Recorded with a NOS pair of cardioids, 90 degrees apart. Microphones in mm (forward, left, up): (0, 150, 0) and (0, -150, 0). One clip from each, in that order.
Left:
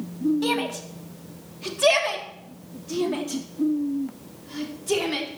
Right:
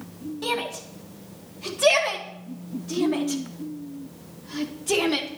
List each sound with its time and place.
0.4 s a shout: 10° left, 3.5 m; by 5.3 s 25° right, 4.5 m